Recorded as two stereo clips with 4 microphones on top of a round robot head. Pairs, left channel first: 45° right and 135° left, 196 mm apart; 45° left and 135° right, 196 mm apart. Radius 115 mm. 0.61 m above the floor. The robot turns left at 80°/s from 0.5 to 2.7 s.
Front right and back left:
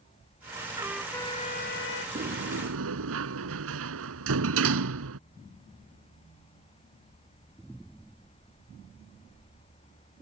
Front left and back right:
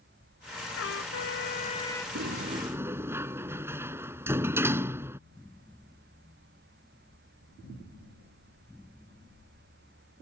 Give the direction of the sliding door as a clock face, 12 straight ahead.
6 o'clock.